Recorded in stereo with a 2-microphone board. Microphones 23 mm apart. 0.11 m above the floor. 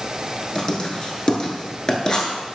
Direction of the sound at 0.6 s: 30° left (ahead or behind).